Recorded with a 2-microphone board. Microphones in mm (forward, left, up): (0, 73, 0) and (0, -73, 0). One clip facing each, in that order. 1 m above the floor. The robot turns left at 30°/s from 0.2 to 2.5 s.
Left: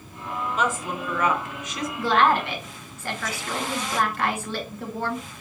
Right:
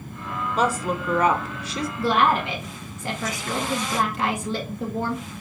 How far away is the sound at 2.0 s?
About 1.5 m.